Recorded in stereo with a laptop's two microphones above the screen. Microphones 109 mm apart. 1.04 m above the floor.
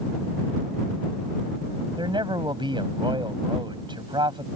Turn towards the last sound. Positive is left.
turn(degrees=-45)  # may be behind; listen again after turning